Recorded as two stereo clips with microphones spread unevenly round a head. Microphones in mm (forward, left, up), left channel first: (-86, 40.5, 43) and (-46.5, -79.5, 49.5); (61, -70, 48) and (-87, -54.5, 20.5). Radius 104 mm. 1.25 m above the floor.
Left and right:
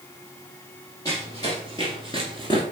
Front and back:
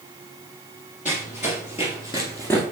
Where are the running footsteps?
35° left, 2.5 m; by 2.6 s 50° left, 1.4 m.